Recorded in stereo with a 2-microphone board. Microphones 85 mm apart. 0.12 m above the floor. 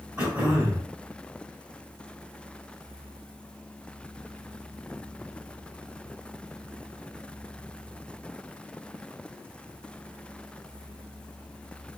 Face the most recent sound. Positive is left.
turn(degrees=-20)  # may be behind; listen again after turning